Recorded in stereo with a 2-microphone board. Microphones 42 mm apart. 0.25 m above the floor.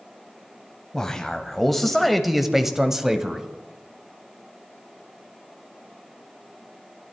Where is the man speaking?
10° left (ahead or behind), 1.3 m; by 3.5 s 15° right (ahead or behind), 1.3 m.